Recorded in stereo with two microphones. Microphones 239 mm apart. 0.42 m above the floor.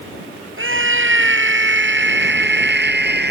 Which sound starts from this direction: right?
A scream, at 0.6 s.